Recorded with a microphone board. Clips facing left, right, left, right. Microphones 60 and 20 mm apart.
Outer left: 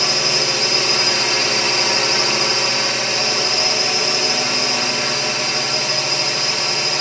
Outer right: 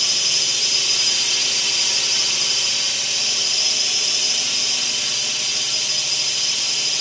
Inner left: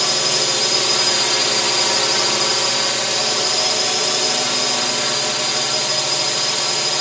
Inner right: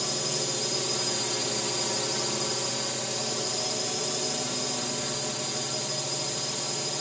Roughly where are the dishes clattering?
No dishes clattering in this recording.